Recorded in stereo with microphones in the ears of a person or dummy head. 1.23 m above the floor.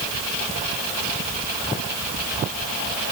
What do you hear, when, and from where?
Only background noise.